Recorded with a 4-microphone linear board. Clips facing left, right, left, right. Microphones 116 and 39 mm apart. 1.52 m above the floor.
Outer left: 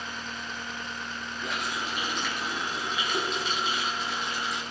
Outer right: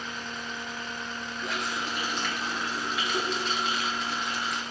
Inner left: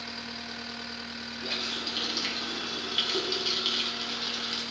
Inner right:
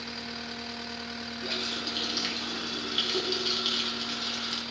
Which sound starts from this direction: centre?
A running tap, at 1.4 s.